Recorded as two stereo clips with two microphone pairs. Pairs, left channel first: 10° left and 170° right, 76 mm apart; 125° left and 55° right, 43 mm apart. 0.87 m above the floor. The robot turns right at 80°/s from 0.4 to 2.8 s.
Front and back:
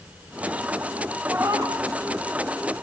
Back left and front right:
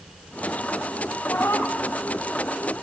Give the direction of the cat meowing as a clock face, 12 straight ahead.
8 o'clock.